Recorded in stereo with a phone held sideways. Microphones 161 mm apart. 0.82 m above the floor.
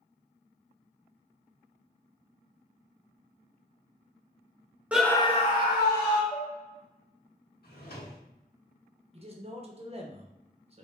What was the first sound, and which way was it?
A scream, 10° right (ahead or behind).